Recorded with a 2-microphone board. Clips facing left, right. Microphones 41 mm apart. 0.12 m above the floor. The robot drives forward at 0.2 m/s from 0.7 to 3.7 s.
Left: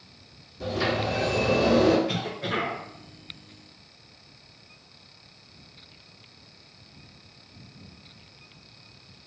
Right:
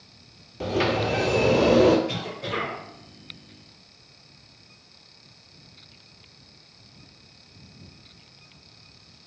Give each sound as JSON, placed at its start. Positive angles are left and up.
{"t": 0.6, "sound": "a sliding door", "side_deg": -65, "distance_m": 0.8}
{"t": 2.1, "sound": "a cough", "side_deg": 30, "distance_m": 1.4}